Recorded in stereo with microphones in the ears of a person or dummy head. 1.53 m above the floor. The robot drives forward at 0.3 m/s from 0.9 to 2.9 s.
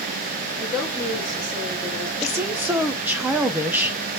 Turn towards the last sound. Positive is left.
turn(degrees=-5)  # may be behind; listen again after turning